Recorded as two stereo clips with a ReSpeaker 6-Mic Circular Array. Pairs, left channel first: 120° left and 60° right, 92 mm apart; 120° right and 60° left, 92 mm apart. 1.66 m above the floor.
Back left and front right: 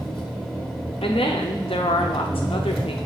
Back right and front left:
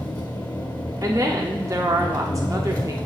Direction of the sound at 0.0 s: 155° right.